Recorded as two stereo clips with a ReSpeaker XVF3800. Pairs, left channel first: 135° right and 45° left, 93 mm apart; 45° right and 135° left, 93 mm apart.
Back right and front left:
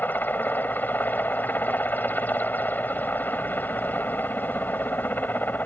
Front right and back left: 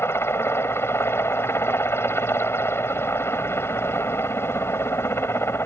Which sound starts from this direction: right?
A helicopter, at 0.0 s.